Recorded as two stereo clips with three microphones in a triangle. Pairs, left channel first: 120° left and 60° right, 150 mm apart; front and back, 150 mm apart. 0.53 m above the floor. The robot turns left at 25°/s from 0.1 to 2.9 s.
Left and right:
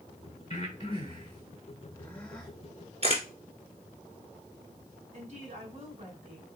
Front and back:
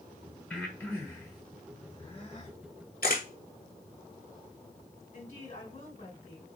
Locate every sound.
0.5 s breathing: 85° left, 1.5 m; by 2.5 s 35° left, 1.5 m
3.0 s a camera shutter: 15° right, 1.4 m
5.1 s a woman speaking: 30° right, 2 m